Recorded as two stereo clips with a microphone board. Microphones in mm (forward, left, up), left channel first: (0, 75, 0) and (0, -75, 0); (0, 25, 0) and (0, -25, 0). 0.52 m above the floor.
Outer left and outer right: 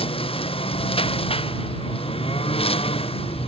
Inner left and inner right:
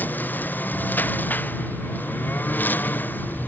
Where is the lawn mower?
40° left (ahead or behind).